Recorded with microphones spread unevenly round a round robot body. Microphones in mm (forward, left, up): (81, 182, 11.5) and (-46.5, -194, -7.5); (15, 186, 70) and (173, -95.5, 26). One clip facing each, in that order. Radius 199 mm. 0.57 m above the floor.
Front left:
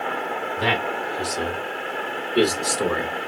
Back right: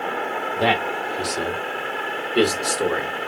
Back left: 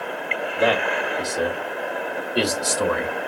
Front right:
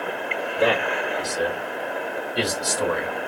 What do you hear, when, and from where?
0.6 s a man speaking: 150° right, 1.8 m; by 3.1 s 140° left, 1.1 m